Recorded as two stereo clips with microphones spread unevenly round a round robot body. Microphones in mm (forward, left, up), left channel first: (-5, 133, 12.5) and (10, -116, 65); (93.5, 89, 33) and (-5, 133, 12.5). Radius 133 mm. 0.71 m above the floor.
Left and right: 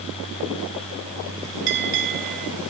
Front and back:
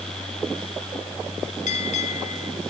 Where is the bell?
40° right, 3 m.